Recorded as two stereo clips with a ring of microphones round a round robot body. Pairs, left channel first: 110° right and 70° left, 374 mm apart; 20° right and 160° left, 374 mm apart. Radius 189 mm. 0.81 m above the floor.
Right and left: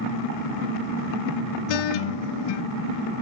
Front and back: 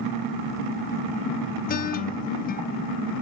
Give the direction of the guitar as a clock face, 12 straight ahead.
3 o'clock.